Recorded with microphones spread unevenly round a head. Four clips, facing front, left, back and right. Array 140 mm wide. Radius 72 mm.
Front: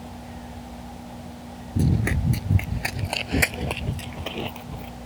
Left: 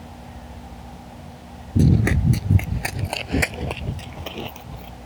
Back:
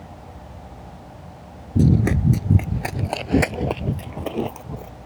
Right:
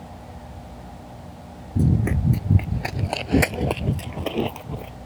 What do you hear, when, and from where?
1.8 s running footsteps: 145° left; by 5.0 s 125° right